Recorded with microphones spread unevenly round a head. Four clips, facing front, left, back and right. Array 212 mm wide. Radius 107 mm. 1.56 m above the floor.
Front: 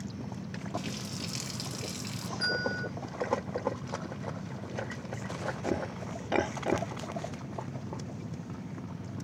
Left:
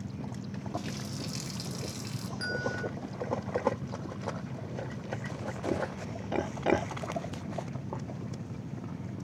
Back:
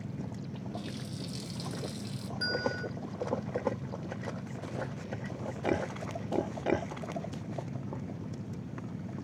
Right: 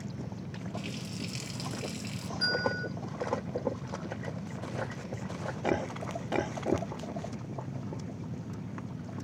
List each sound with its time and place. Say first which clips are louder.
0.7 s a running tap: left 2 dB, front 5 dB; 20° left, 0.6 m
2.4 s a bell: right 2 dB, even; 160° left, 3.5 m